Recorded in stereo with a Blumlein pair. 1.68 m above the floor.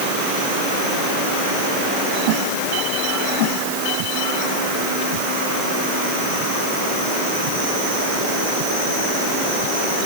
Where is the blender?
I don't hear a blender.